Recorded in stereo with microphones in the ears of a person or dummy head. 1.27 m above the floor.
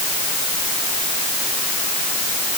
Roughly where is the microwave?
No microwave in this recording.